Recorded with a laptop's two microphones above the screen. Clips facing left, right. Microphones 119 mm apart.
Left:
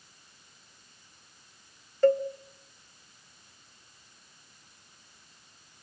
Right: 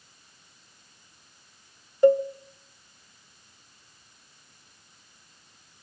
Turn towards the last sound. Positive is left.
turn(degrees=-15)  # may be behind; listen again after turning